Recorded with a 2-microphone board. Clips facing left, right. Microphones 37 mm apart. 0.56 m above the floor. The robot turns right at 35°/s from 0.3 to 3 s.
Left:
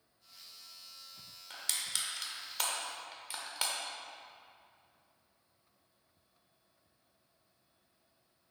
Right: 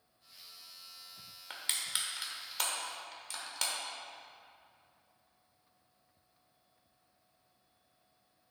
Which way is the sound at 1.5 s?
35° right (ahead or behind).